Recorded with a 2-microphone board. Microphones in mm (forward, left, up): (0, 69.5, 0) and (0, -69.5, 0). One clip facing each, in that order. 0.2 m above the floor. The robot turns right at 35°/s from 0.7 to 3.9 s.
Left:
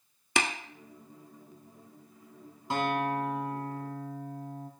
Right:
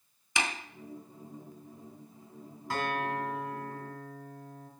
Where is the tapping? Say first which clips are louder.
Left 3 dB; 65° left (ahead or behind), 0.6 m.